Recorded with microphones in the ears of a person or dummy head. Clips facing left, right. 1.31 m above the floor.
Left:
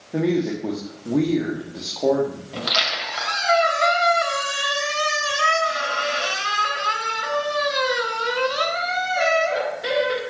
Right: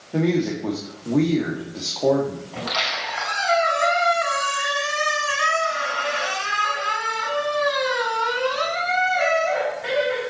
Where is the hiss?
I don't hear a hiss.